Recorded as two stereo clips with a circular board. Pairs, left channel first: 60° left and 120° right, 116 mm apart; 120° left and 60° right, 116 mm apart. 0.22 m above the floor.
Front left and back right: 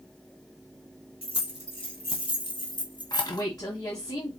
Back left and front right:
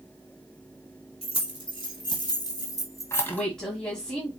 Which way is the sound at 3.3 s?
40° left.